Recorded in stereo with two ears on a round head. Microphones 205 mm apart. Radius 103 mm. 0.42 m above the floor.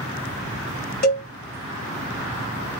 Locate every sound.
1.0 s a cowbell: 45° left (ahead or behind), 1.7 m